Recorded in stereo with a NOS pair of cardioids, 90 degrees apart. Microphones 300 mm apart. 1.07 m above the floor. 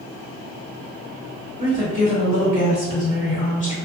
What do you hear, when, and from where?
1.6 s a woman speaking: 25° left, 1.7 m